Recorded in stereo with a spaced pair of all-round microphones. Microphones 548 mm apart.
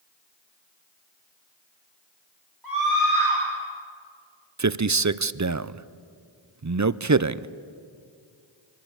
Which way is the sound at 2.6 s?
40° right (ahead or behind).